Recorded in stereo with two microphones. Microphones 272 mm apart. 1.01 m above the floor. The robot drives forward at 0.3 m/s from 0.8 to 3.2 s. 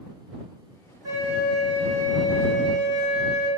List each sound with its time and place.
1.0 s a flute: 60° right (ahead or behind), 1.4 m; by 3.5 s 55° right (ahead or behind), 1.4 m